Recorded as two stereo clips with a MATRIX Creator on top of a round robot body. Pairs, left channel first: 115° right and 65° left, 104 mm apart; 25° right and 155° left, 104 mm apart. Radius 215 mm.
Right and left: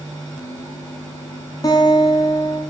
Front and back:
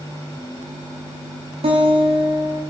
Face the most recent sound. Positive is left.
turn(degrees=-170)